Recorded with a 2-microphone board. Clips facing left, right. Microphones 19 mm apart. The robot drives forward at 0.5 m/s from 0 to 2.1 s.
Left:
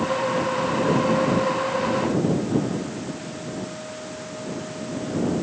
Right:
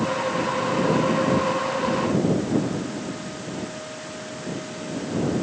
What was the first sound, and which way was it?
Only background noise.